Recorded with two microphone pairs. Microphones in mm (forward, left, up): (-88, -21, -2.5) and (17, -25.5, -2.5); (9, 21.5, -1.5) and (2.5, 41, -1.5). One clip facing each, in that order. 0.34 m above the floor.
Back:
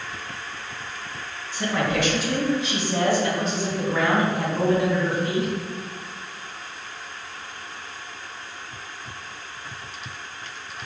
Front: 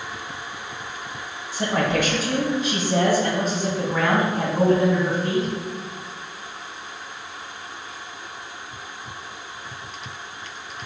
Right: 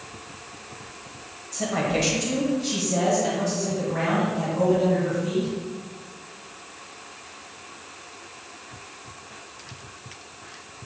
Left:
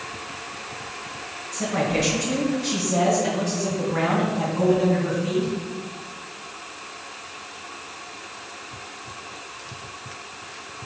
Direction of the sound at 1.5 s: 10° right.